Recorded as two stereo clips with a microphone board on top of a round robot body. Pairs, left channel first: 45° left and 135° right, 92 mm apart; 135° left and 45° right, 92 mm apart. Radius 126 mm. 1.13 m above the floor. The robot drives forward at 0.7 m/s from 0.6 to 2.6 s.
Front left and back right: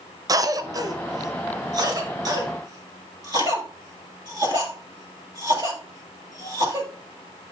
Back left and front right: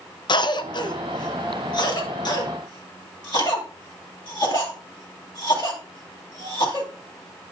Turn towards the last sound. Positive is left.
turn(degrees=180)